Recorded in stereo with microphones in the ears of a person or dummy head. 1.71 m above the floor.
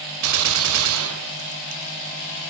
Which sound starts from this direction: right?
A gunshot, at 0.2 s.